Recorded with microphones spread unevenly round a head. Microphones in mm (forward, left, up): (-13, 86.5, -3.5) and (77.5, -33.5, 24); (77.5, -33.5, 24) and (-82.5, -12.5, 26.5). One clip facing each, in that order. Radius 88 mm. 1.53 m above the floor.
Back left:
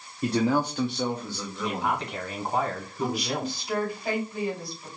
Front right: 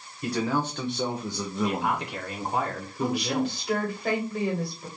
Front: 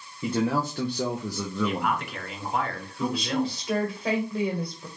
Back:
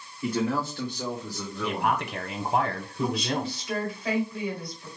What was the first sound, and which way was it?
A man speaking, 60° left.